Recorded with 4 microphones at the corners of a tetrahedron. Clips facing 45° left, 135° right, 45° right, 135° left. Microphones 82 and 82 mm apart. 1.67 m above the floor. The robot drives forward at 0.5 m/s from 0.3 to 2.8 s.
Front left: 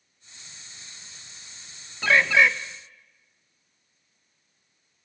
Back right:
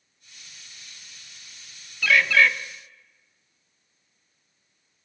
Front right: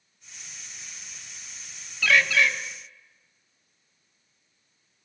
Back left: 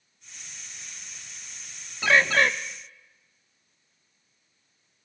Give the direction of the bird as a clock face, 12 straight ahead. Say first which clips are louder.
Even, back left 1 dB; 9 o'clock.